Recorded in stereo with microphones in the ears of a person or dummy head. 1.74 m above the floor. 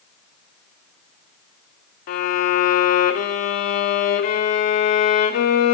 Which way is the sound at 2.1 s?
45° left (ahead or behind).